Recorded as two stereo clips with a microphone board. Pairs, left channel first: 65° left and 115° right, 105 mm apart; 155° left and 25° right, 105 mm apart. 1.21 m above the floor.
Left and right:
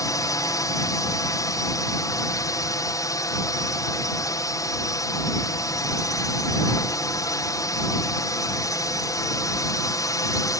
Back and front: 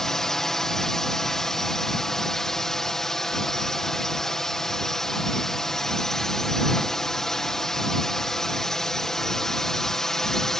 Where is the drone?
75° left.